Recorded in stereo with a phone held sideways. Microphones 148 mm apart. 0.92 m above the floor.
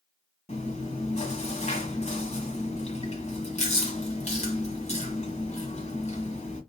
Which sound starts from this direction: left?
Chewing, at 0.5 s.